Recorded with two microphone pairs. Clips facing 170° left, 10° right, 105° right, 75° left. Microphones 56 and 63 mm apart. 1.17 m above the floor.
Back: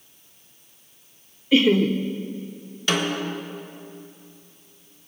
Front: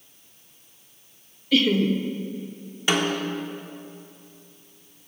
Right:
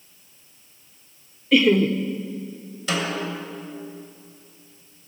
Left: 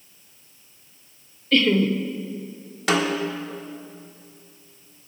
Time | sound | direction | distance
1.5 | laughter | 160° right | 0.6 m
2.9 | a snare drum | 60° left | 1.5 m